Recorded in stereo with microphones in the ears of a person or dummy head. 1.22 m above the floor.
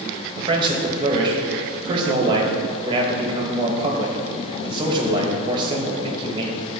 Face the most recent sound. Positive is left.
turn(degrees=-25)  # may be behind; listen again after turning